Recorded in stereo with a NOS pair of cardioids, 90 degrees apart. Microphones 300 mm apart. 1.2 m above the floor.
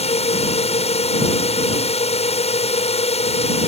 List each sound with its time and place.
0.0 s a drone: 20° left